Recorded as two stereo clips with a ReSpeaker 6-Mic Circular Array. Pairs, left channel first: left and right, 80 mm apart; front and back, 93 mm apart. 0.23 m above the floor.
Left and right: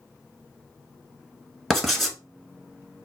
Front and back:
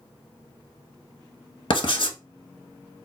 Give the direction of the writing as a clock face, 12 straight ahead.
12 o'clock.